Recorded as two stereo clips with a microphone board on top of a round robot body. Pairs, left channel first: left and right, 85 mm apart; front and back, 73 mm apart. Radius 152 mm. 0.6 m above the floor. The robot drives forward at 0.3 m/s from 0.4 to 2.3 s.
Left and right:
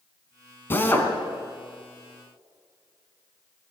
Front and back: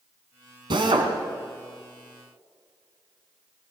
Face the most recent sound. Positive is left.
turn(degrees=160)